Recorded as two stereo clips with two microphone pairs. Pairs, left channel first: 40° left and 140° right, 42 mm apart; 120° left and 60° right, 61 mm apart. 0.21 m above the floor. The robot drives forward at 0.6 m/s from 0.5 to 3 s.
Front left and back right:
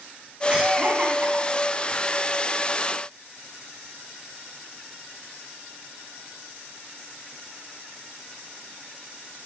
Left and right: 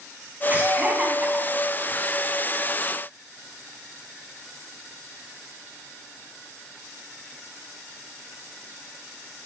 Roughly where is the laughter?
Right.